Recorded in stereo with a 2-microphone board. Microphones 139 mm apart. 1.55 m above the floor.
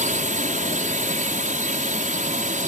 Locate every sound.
0.0 s a drone: 70° right (ahead or behind)